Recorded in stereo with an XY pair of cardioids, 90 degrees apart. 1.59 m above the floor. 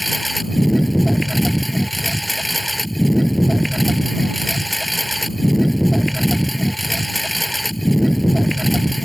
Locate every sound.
0.0 s a lawn mower: 5° left